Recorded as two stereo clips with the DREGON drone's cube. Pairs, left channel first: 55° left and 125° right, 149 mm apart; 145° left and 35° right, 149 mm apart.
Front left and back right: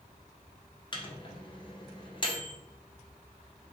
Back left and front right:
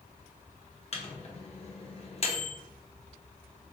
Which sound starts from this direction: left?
A microwave, at 0.9 s.